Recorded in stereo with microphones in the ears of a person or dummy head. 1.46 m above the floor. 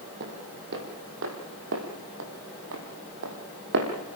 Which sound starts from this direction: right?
Footsteps, at 0.2 s.